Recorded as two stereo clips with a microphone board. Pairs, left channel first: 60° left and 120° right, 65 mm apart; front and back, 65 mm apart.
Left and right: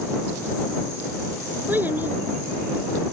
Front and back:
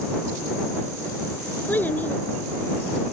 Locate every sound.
1.7 s a child speaking: 60° right